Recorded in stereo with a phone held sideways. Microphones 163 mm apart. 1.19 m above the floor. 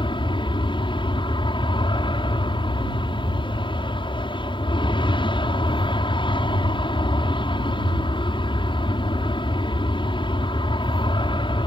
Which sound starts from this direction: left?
An aircraft, at 0.0 s.